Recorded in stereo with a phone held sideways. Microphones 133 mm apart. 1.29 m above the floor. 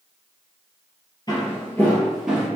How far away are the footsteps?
About 1.6 m.